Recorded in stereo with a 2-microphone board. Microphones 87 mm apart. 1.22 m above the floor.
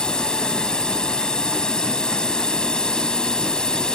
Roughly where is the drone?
Centre.